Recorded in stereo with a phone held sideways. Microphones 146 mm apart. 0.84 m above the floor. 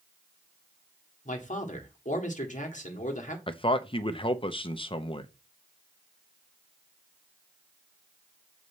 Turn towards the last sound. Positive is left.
turn(degrees=35)  # may be behind; listen again after turning